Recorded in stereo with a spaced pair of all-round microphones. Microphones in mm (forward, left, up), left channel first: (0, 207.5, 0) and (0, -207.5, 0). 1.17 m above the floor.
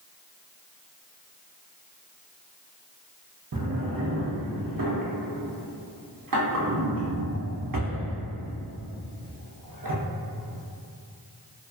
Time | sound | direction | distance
3.5 | a drawer | 55° right (ahead or behind) | 0.5 m